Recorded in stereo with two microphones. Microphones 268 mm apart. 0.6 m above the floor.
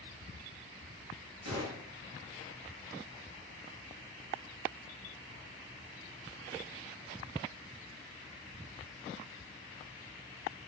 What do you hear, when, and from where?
1.4 s a gunshot: 75° right (ahead or behind), 6 m